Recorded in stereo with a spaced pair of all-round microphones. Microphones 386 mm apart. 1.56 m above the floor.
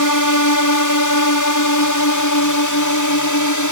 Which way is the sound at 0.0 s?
55° left (ahead or behind).